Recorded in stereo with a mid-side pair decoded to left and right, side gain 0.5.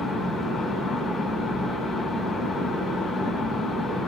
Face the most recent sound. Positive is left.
turn(degrees=40)